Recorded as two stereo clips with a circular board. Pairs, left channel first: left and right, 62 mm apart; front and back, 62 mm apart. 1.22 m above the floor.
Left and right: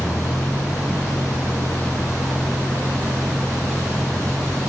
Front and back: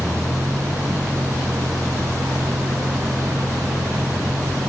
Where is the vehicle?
120° left; by 4.7 s 145° left.